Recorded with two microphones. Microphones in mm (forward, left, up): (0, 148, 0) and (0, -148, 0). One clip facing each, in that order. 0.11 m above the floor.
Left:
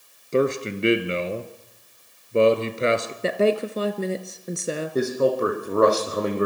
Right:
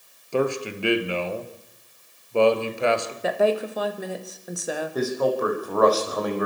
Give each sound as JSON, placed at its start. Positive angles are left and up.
{"t": 0.3, "sound": "a man speaking", "side_deg": 25, "distance_m": 2.0}
{"t": 3.2, "sound": "a woman speaking", "side_deg": 30, "distance_m": 1.8}
{"t": 5.0, "sound": "a man speaking", "side_deg": 30, "distance_m": 5.5}